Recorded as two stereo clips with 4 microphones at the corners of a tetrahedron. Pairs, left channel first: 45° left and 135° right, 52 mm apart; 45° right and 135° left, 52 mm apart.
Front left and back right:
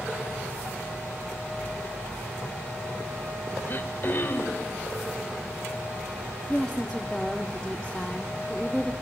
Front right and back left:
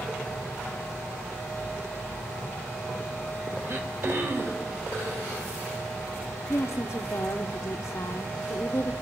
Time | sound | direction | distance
3.7 | throat clearing | 95° left | 3 m
6.5 | a woman speaking | 40° right | 1.4 m